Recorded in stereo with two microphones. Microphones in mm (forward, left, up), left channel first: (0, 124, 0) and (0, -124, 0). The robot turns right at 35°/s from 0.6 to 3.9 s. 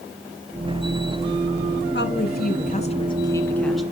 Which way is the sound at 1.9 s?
115° left.